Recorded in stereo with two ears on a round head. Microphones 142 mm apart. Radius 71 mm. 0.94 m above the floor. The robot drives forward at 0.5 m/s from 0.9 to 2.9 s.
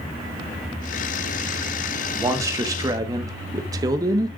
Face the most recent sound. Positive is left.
turn(degrees=-25)  # may be behind; listen again after turning